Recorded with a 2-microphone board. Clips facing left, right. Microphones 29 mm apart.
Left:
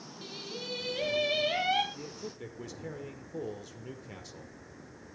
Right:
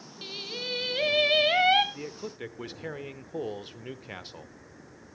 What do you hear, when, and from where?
0.2 s singing: 40° right (ahead or behind), 1.9 m
1.9 s a man speaking: 45° right (ahead or behind), 1.0 m